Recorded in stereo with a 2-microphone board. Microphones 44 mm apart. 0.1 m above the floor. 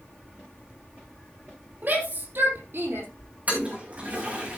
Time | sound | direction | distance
1.8 | a shout | 45° right (ahead or behind) | 3.5 m
3.5 | a toilet flushing | 35° right (ahead or behind) | 4 m